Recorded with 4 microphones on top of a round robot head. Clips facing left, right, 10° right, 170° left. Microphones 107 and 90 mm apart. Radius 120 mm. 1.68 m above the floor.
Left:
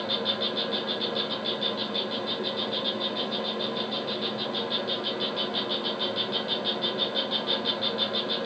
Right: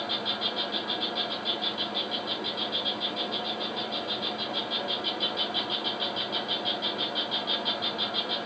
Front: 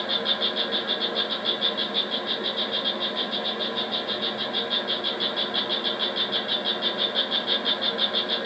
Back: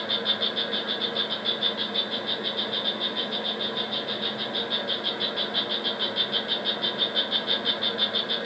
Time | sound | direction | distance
0.0 | an insect | 75° left | 1.3 m